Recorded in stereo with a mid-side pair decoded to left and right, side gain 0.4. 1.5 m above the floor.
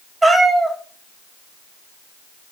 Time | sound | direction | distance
0.2 | a cat meowing | 20° right | 3.5 m